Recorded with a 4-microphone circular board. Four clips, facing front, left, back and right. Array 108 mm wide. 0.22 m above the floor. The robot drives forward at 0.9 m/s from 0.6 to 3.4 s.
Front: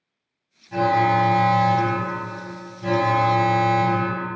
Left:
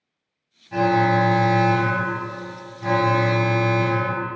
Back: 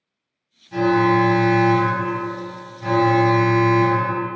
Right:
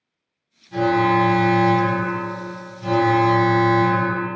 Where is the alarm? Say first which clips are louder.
Right 1 dB, back 2 dB; 70° left, 2.5 m; by 4.2 s 150° left, 3 m.